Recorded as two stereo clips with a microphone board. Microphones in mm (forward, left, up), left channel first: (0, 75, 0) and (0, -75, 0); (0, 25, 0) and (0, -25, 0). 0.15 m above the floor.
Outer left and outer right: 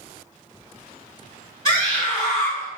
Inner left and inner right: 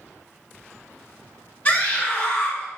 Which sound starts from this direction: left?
A scream, at 1.6 s.